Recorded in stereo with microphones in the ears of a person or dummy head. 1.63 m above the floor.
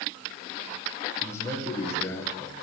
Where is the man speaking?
10° left (ahead or behind), 1.9 m.